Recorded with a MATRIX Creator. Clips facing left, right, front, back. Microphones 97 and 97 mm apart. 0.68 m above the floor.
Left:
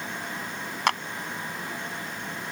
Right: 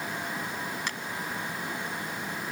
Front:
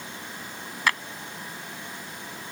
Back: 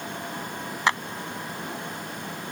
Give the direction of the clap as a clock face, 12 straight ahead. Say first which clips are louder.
Left 11 dB, back 2 dB; 8 o'clock.